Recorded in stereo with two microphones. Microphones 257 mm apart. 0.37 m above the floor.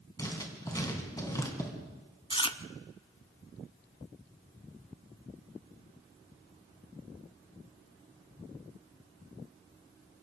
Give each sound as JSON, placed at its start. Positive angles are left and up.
{"t": 0.2, "sound": "writing", "side_deg": 15, "distance_m": 3.5}
{"t": 2.3, "sound": "chewing", "side_deg": 20, "distance_m": 0.7}